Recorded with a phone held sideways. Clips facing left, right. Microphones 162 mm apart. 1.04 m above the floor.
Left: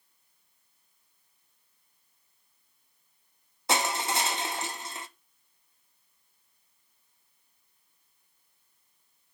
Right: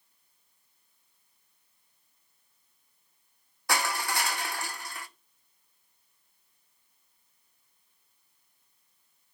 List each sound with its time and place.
3.7 s crushing: 20° left (ahead or behind), 0.5 m